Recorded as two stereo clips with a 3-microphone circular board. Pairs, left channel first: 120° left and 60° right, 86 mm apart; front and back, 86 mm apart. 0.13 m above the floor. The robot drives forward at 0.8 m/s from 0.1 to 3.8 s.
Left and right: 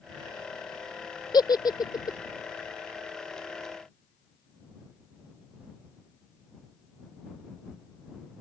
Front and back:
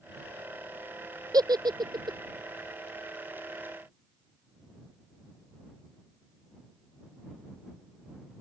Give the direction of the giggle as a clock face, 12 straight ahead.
7 o'clock.